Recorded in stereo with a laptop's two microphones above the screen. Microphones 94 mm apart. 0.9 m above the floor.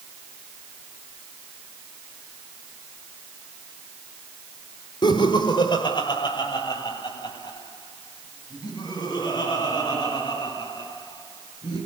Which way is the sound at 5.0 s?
60° left (ahead or behind).